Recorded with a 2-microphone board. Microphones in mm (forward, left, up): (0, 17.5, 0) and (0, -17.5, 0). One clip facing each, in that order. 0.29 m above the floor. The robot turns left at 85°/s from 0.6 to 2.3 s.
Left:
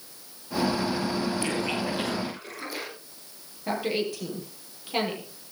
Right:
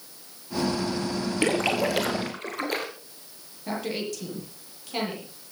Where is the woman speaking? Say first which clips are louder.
Left 3 dB; 15° left (ahead or behind), 7.5 m.